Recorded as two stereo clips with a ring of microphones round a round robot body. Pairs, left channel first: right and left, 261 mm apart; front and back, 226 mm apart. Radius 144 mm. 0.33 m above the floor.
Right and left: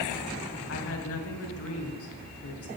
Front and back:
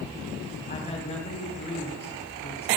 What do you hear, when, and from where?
0.7 s a woman speaking: 65° right, 3 m